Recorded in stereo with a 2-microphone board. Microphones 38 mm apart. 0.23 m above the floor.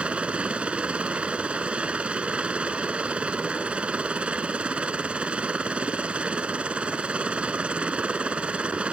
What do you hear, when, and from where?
0.0 s a helicopter: 35° right (ahead or behind)